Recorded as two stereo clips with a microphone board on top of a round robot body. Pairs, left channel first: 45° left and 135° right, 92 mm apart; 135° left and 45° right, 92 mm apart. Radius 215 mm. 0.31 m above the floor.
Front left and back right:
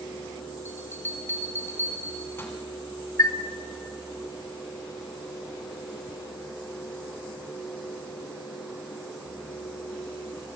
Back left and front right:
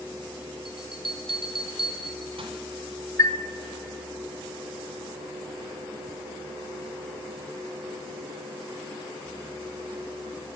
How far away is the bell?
About 2.5 m.